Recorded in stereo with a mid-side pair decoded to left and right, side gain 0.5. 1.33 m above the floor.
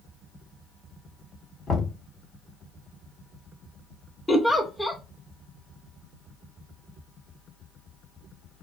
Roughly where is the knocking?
Ahead left.